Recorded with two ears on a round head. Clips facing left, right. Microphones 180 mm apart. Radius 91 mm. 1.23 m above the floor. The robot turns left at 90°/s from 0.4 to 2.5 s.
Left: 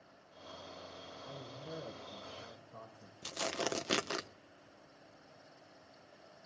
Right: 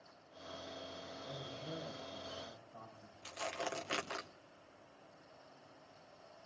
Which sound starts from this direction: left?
Tearing paper, at 3.2 s.